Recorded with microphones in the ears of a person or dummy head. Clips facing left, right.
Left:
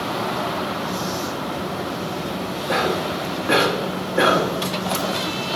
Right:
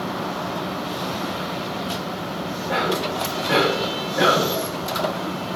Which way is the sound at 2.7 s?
75° left (ahead or behind).